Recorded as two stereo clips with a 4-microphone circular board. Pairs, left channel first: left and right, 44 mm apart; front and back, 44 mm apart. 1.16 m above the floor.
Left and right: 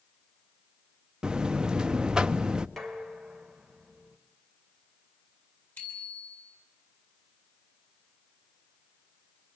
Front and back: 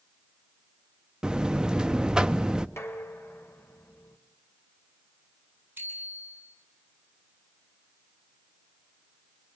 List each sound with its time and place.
1.2 s a buzzer: 135° right, 0.7 m
2.8 s dishes clattering: 5° left, 3 m
5.8 s a bicycle bell: 135° left, 8 m